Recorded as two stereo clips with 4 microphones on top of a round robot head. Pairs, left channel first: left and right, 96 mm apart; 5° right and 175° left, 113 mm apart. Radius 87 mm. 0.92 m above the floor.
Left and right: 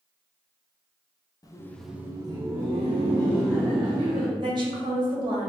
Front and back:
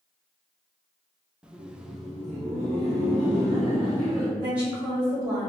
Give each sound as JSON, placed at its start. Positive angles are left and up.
{"t": 1.4, "sound": "laughter", "azimuth_deg": 100, "distance_m": 0.7}
{"t": 4.4, "sound": "a woman speaking", "azimuth_deg": -105, "distance_m": 1.4}